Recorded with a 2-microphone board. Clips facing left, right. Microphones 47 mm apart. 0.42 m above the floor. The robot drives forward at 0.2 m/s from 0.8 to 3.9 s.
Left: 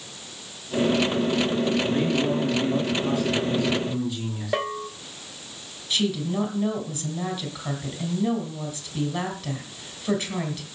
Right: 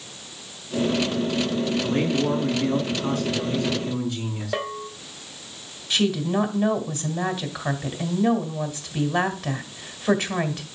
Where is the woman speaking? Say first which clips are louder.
Right 3 dB; 65° right (ahead or behind), 2.5 m.